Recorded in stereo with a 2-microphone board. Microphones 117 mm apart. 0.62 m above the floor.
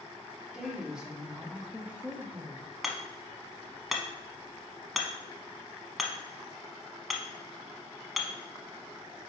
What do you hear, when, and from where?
0.5 s a woman speaking: 5° right (ahead or behind), 1.7 m; by 2.7 s 15° right (ahead or behind), 1.4 m
2.8 s hammering: centre (ahead or behind), 1.1 m